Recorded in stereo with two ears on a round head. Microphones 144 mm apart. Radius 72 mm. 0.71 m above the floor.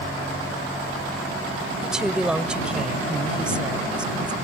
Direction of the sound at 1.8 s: 5° right (ahead or behind).